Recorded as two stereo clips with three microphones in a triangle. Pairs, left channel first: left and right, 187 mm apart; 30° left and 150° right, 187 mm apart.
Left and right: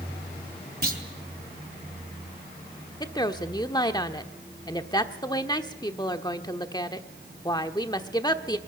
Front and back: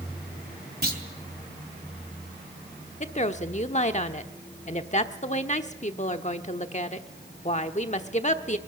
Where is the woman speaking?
40° left, 1.0 m.